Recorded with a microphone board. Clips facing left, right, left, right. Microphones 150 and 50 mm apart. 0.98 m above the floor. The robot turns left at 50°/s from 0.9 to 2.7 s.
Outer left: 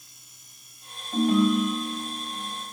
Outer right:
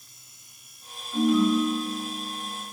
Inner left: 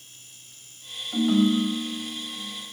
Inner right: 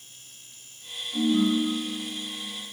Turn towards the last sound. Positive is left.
turn(degrees=60)